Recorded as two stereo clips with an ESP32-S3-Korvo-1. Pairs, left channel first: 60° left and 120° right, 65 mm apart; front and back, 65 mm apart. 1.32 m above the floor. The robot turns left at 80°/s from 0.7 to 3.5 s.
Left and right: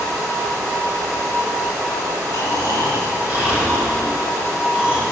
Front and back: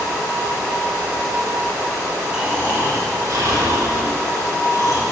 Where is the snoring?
100° right, 4 m; by 5.0 s 165° left, 4 m.